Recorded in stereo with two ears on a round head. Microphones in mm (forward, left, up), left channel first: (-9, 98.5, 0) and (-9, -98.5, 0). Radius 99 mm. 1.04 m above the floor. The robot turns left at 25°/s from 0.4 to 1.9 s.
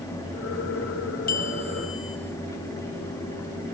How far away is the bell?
About 5 m.